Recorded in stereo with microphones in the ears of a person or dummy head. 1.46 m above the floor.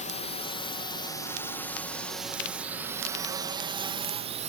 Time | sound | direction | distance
0.0 | a drone | 35° left (ahead or behind) | ?